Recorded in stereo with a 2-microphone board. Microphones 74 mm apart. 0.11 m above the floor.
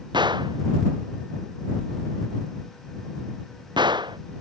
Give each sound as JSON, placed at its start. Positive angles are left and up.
{"t": 0.1, "sound": "a gunshot", "side_deg": -80}